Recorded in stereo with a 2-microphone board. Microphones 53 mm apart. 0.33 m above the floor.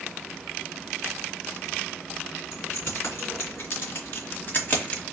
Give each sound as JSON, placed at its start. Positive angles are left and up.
{"t": 2.5, "sound": "keys jangling", "side_deg": 55, "distance_m": 2.5}